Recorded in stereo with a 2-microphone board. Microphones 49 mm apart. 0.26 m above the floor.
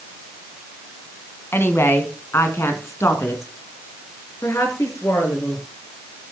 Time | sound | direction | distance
1.5 | a woman speaking | 55° left (ahead or behind) | 2.5 m